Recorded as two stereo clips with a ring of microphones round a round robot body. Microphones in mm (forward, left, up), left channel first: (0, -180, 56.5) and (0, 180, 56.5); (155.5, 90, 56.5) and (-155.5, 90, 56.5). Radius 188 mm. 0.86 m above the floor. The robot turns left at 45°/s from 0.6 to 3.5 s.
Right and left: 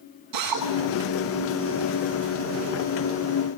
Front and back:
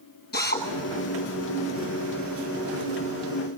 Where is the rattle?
No rattle in this recording.